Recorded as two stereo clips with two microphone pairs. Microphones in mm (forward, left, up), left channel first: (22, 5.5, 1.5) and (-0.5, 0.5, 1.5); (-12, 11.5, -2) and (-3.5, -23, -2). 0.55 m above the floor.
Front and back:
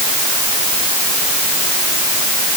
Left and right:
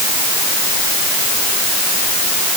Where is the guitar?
No guitar in this recording.